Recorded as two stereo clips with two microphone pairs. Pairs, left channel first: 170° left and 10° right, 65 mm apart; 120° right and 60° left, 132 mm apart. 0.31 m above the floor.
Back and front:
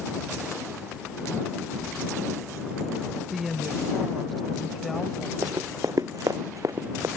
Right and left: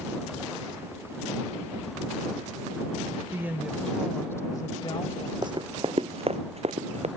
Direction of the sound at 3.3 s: 75° left.